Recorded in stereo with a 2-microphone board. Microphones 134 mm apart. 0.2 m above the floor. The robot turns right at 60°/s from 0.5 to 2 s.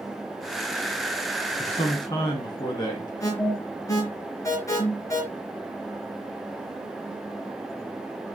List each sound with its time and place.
1.6 s a man speaking: 50° left (ahead or behind), 1.9 m; by 3.1 s 30° left (ahead or behind), 1.9 m
3.2 s an alarm: 25° left (ahead or behind), 4 m